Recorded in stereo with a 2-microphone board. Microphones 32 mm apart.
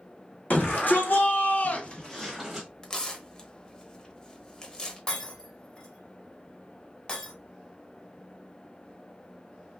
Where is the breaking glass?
30° left (ahead or behind), 1.4 m.